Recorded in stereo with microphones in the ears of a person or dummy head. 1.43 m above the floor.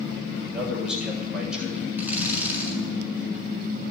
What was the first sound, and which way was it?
A man speaking, centre (ahead or behind).